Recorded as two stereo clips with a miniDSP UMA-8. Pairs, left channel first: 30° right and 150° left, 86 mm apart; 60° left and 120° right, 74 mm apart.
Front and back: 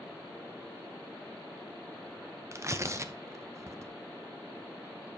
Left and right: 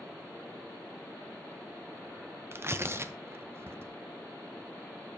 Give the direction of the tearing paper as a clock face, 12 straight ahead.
5 o'clock.